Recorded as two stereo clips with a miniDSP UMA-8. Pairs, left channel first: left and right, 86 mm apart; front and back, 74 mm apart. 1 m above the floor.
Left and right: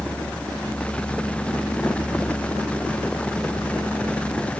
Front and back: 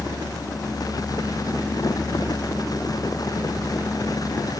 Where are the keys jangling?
No keys jangling in this recording.